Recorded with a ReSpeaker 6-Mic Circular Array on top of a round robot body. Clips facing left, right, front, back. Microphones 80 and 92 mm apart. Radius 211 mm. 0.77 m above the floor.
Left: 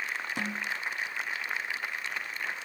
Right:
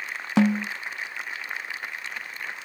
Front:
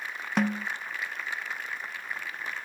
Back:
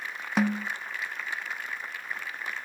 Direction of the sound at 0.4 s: 90° right.